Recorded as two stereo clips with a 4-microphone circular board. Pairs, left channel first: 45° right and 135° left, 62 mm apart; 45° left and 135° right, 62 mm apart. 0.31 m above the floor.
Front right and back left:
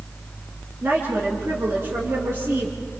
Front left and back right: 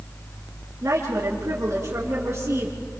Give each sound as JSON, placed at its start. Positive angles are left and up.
{"t": 0.8, "sound": "a woman speaking", "azimuth_deg": -175, "distance_m": 3.5}